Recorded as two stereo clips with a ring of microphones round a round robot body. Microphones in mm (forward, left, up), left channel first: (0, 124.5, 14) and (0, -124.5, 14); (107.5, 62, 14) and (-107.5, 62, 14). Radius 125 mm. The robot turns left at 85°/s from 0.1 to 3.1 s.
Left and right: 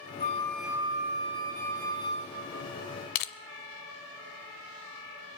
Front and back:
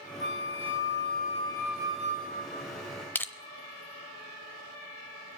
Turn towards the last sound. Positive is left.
turn(degrees=80)